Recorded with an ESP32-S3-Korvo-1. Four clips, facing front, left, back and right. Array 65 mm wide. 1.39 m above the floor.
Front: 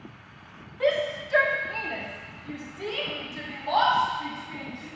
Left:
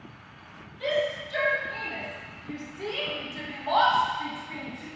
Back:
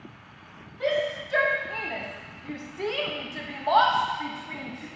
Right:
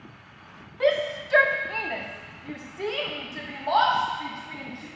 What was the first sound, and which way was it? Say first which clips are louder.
A shout: right 4 dB, front 1 dB; 80° right.